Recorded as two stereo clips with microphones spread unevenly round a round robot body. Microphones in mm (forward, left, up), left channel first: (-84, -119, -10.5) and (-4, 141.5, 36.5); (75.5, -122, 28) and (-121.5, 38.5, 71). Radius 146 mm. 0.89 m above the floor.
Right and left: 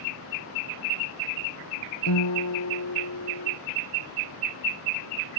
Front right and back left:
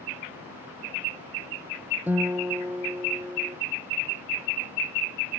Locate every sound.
2.1 s a guitar: 140° right